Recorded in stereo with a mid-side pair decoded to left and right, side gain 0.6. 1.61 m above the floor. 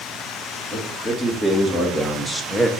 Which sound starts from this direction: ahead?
A man speaking, at 0.7 s.